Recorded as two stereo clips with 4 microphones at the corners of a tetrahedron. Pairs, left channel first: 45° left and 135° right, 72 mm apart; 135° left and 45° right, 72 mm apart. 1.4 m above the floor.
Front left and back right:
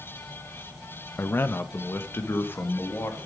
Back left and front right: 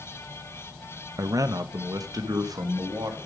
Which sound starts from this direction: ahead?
A man speaking, at 1.2 s.